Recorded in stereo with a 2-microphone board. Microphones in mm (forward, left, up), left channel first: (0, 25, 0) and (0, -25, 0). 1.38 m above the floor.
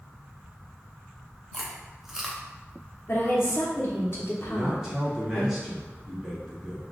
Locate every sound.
1.5 s chewing: 10° right (ahead or behind), 0.6 m
3.1 s a woman speaking: 55° left (ahead or behind), 1.0 m
4.5 s a man speaking: 10° right (ahead or behind), 1.5 m